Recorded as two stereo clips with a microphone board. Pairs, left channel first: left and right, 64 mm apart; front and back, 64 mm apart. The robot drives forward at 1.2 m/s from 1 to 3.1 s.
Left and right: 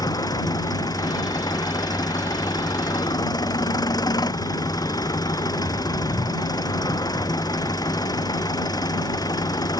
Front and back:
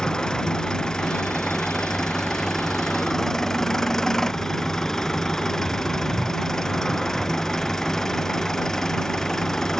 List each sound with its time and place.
0.0 s an engine running: 80° left; by 9.8 s 85° left